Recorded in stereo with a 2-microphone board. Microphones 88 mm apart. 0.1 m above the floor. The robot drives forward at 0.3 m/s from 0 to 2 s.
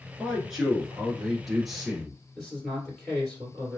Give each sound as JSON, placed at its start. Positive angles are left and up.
{"t": 0.2, "sound": "a man speaking", "side_deg": -5, "distance_m": 1.1}
{"t": 2.4, "sound": "a man speaking", "side_deg": 0, "distance_m": 1.8}